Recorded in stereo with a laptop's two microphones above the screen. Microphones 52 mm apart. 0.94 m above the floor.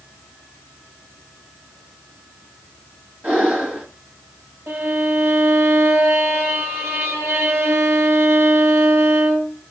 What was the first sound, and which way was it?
Breathing, 25° right (ahead or behind).